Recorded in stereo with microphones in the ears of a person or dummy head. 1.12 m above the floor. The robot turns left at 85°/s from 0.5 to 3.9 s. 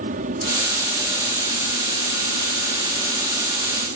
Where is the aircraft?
130° right; by 4.0 s 60° right.